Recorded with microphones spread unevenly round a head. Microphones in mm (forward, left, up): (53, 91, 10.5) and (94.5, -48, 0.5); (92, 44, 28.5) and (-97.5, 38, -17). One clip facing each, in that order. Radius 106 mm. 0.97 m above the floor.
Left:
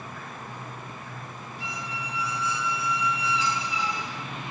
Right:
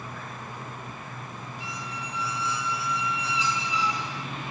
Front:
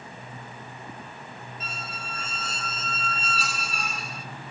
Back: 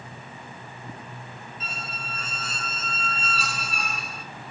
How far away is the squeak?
About 1.5 m.